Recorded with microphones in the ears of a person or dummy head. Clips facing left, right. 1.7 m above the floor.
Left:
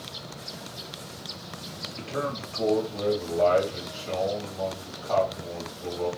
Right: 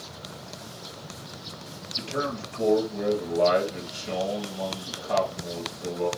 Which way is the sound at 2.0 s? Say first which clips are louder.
Right 1 dB; 15° right (ahead or behind).